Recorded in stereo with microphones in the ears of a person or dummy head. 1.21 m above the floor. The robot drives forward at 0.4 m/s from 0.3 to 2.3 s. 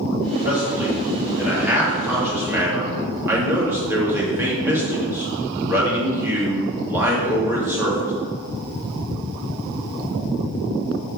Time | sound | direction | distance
0.5 | a man speaking | 10° right (ahead or behind) | 2.5 m